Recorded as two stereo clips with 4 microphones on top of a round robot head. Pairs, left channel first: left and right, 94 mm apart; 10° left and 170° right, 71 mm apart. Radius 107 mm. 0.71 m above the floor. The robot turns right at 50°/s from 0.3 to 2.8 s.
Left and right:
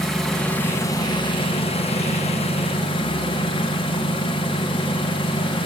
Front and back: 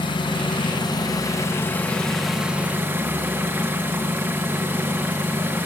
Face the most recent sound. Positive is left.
turn(degrees=125)